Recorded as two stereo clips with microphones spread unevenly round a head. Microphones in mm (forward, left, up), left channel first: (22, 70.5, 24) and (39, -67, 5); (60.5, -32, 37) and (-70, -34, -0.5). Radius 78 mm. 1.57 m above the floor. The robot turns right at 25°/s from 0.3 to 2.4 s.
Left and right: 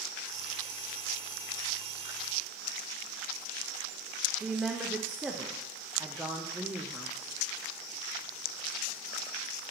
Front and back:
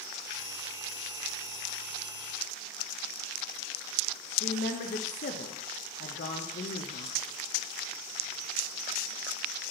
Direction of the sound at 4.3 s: Straight ahead.